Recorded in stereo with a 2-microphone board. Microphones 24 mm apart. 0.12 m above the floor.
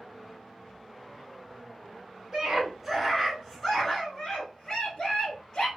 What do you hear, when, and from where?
2.3 s a scream: 15° right (ahead or behind), 1.2 m; by 5.7 s 45° left (ahead or behind), 1.5 m